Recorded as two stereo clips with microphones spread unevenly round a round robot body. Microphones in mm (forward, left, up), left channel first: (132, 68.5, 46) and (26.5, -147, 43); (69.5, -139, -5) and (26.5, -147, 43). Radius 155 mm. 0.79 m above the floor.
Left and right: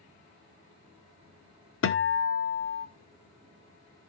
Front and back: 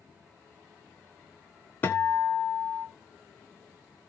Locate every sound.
1.8 s a guitar: 30° left, 1.5 m